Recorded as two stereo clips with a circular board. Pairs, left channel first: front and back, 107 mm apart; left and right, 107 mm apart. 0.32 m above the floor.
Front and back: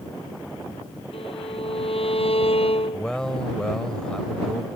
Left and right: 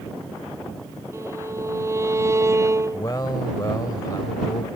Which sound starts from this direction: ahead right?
A violin, at 1.1 s.